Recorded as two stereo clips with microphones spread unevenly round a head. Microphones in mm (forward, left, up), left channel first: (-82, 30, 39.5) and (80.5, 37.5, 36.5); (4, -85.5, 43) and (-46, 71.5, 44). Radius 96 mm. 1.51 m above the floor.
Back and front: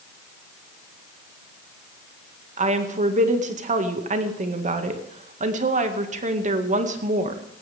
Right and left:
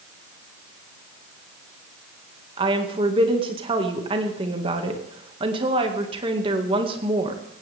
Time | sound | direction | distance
2.6 | a woman speaking | 45° left | 2 m